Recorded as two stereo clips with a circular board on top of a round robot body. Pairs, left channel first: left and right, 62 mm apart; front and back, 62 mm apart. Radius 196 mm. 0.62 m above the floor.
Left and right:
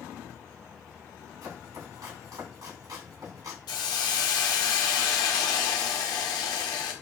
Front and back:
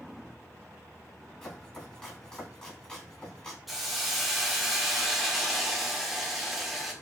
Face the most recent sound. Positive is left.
turn(degrees=95)